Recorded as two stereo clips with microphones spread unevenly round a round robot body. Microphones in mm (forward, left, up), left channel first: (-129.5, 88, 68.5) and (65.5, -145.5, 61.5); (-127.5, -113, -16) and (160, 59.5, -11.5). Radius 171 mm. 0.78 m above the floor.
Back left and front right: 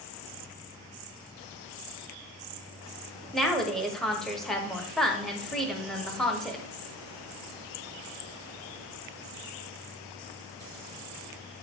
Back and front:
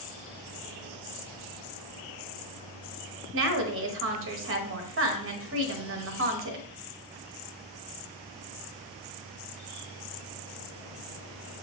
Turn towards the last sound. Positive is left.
turn(degrees=40)